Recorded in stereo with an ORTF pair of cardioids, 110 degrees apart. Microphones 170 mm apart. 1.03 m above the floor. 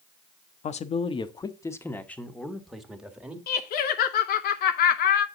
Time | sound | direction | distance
0.6 | a man speaking | 45° left | 0.9 m
3.5 | laughter | 70° left | 0.7 m